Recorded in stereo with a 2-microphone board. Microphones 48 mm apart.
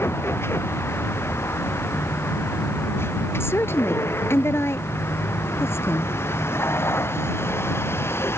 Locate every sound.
0.0 s a vehicle: 60° left (ahead or behind)
3.4 s a woman speaking: 55° left (ahead or behind)